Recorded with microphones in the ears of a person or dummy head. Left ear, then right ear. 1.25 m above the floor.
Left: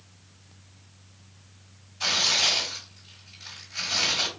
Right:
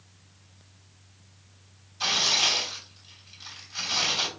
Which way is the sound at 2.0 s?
35° right (ahead or behind).